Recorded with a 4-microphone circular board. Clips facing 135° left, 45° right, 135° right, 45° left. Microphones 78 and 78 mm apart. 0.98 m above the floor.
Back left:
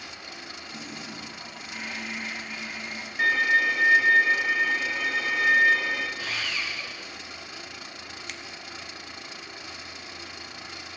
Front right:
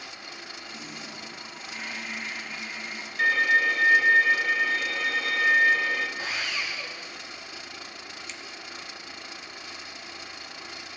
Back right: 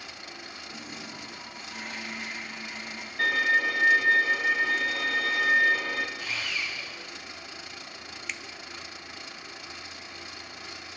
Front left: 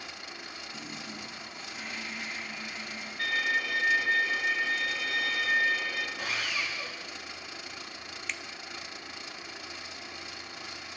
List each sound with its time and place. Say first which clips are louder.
0.7 s a toilet flushing: back left 3 dB, back right 1 dB; 145° right, 9 m
3.2 s a violin: even, back right 6 dB; 150° right, 2 m
6.2 s sawing: even, front left 1 dB; 25° left, 2.5 m
8.3 s a finger snap: back left 2 dB, even; 140° left, 0.5 m